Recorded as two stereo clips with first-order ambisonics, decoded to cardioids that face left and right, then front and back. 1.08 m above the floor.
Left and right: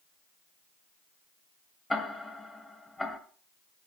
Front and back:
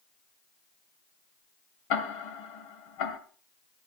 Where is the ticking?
10° left, 2.0 m.